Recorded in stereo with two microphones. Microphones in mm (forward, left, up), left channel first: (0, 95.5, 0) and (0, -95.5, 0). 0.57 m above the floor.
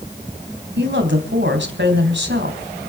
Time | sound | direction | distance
0.8 | a woman speaking | 70° right (ahead or behind) | 4 m